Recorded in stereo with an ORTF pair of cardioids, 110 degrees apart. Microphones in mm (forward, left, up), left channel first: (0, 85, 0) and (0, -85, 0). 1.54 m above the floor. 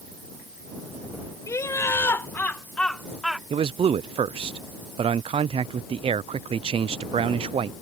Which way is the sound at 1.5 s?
15° left.